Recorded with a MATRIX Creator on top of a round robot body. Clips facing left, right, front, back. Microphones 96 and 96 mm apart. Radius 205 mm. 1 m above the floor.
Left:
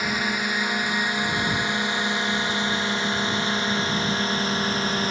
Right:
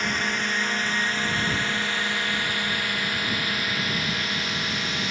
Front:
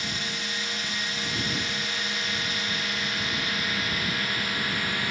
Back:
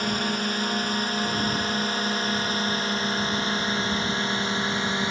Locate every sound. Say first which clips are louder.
0.0 s a drone: left 1 dB, back 8 dB; 170° left; by 5.1 s 125° left